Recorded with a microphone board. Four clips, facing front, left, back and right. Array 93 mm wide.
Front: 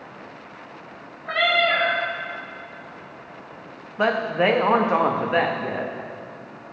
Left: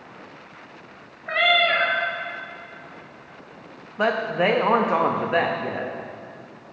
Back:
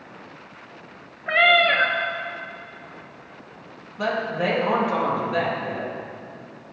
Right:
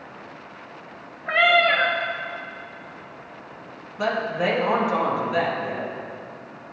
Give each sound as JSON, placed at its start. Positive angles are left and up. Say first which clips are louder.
{"t": 1.3, "sound": "a cat meowing", "louder": "right 2 dB, back 3 dB", "azimuth_deg": -155, "distance_m": 1.0}
{"t": 4.0, "sound": "a woman speaking", "louder": "left 2 dB, front 4 dB", "azimuth_deg": 40, "distance_m": 0.8}